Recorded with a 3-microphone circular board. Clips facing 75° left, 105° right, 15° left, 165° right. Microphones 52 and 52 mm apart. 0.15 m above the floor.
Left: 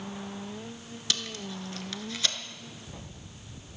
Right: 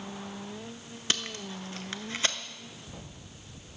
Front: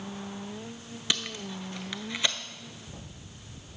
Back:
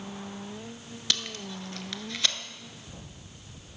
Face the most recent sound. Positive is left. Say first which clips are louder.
# right 1 dB, front 1 dB
turn(degrees=-55)